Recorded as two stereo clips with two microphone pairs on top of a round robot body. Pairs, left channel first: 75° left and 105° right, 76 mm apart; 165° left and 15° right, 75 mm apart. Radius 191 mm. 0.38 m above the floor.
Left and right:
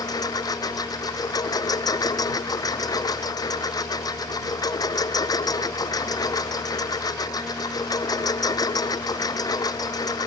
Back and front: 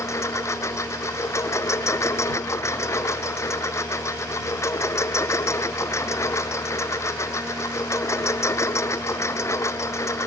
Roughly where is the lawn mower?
Behind left.